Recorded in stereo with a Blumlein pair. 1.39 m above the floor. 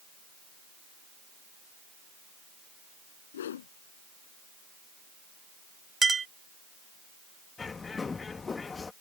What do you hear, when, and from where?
3.3 s a whoosh: 60° left
6.0 s a clink: 15° right
7.6 s a bird: 15° left